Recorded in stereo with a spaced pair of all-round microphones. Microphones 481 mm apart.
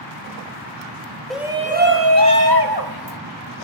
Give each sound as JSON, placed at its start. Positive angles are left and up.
{"t": 1.3, "sound": "a shout", "side_deg": 0, "distance_m": 0.9}